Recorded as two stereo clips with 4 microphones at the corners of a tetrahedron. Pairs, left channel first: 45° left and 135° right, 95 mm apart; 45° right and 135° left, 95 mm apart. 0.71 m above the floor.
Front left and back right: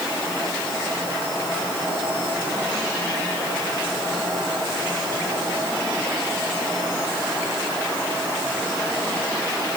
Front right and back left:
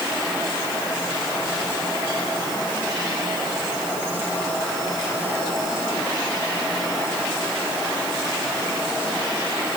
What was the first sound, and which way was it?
Only background noise.